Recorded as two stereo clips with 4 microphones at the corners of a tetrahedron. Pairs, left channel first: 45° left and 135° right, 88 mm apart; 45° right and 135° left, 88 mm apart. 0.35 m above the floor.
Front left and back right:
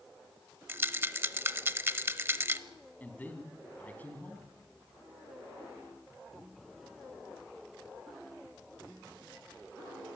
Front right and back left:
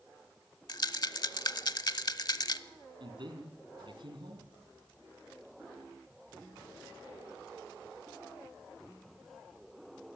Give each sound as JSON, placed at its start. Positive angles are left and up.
{"t": 0.7, "sound": "a rattle", "azimuth_deg": -75, "distance_m": 0.8}
{"t": 3.0, "sound": "a man speaking", "azimuth_deg": 115, "distance_m": 3.5}